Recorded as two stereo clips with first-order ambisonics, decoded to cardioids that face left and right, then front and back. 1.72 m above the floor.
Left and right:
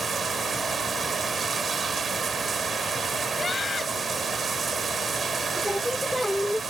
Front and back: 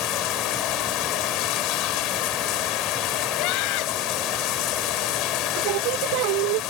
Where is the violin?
I don't hear a violin.